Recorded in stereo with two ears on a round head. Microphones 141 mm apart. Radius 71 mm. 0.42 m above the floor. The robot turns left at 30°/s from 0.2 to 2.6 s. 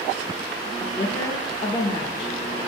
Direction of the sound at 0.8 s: 150° left.